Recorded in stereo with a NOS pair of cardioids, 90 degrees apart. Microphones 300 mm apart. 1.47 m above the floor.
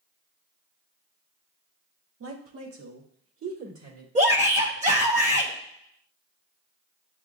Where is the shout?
25° right, 1.0 m.